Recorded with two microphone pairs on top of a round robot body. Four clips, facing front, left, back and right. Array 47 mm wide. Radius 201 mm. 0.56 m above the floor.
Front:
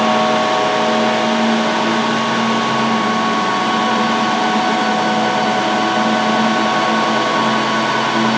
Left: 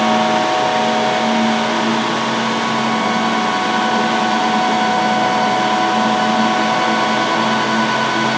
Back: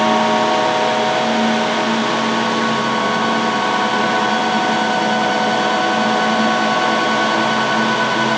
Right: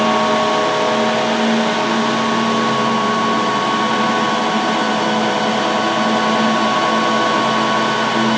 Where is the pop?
I don't hear a pop.